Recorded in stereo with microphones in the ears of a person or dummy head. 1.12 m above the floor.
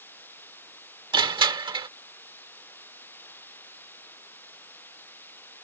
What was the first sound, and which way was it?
Running water, 15° left (ahead or behind).